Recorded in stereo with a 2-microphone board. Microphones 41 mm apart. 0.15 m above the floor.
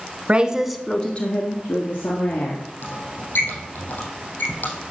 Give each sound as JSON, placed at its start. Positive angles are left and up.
{"t": 0.3, "sound": "a woman speaking", "side_deg": -30, "distance_m": 1.2}
{"t": 2.8, "sound": "a squeak", "side_deg": 55, "distance_m": 5.5}